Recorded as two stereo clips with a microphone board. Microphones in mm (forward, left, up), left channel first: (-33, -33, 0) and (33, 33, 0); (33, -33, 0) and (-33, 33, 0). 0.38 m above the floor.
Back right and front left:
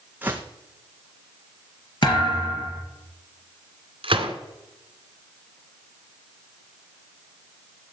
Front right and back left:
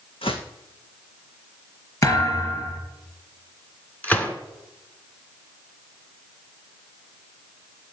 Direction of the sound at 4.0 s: 30° left.